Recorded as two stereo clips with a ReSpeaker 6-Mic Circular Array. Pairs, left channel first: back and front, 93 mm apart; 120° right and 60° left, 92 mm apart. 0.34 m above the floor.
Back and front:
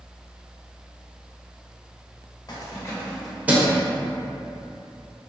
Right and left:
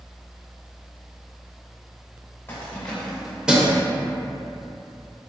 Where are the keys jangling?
170° right, 0.8 m; by 3.8 s 5° left, 0.7 m.